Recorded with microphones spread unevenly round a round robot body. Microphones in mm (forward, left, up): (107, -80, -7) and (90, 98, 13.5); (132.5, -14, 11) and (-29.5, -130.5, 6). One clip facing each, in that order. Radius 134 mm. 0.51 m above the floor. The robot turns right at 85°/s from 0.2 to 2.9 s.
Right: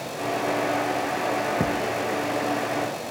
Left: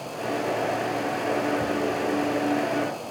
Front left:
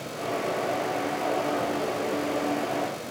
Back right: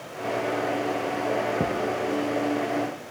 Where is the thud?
100° right; by 2.0 s 70° right.